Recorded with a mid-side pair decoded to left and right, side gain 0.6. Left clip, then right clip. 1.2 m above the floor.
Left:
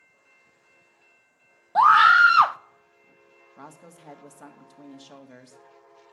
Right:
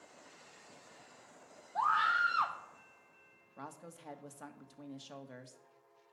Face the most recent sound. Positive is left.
turn(degrees=10)